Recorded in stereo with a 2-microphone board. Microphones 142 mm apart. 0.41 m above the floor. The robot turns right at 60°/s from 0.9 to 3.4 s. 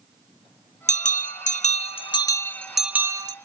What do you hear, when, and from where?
0.9 s a bell: 70° left, 0.7 m; by 3.4 s 145° right, 0.7 m